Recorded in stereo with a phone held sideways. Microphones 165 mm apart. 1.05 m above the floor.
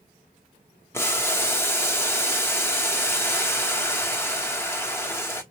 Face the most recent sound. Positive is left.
turn(degrees=15)  # may be behind; listen again after turning